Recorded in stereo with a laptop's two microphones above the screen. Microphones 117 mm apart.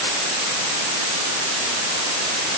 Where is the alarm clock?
I don't hear an alarm clock.